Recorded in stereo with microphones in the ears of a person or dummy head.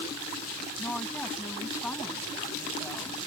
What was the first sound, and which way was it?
A woman speaking, 10° left (ahead or behind).